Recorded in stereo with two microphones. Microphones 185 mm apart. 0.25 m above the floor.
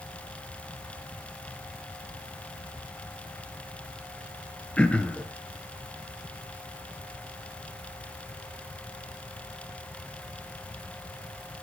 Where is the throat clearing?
5° left (ahead or behind), 1.1 m.